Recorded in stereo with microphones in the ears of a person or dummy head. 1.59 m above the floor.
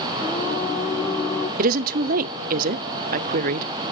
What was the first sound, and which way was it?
Singing, 15° left (ahead or behind).